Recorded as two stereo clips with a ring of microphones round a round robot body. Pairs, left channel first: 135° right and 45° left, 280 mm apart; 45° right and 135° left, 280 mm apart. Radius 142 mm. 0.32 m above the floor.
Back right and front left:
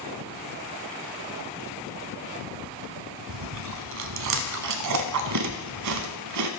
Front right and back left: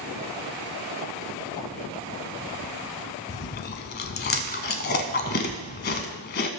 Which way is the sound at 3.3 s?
10° left.